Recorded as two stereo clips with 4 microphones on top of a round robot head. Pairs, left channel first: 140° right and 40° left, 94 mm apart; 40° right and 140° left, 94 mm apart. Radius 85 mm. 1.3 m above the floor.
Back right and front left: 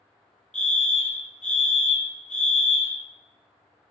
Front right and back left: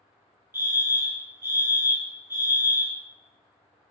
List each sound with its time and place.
0.5 s a fire alarm: 150° left, 1.3 m